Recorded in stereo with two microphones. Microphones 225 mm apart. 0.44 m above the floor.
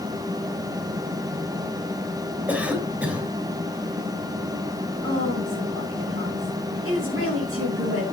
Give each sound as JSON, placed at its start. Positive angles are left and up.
{"t": 2.5, "sound": "a cough", "side_deg": -5, "distance_m": 3.5}
{"t": 5.0, "sound": "a woman speaking", "side_deg": -75, "distance_m": 4.0}